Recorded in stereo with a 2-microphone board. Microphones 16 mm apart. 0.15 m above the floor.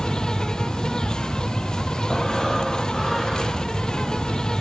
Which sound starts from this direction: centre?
Breathing, at 2.1 s.